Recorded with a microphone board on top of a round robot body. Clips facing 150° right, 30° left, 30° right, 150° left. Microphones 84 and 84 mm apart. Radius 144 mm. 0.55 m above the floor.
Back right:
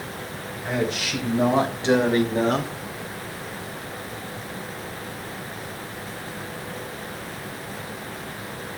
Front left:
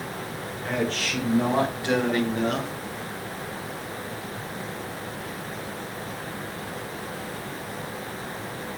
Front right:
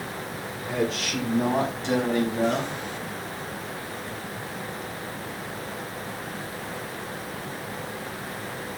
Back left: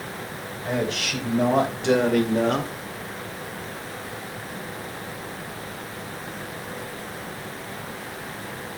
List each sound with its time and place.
0.7 s a man speaking: 130° left, 4.5 m; by 2.7 s 170° left, 2 m